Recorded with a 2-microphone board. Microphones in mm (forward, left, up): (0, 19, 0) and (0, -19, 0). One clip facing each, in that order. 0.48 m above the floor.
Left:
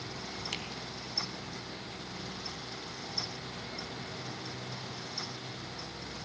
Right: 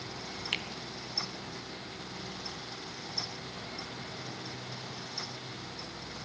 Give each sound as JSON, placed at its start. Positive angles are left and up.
{"t": 0.5, "sound": "a finger snap", "side_deg": -30, "distance_m": 3.0}